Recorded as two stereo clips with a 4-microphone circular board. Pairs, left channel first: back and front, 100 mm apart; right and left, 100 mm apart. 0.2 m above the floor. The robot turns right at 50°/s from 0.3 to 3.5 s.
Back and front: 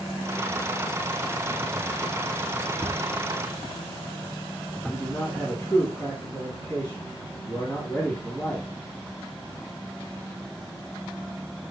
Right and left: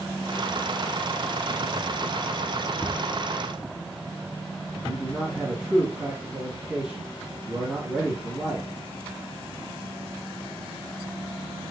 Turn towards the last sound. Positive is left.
turn(degrees=165)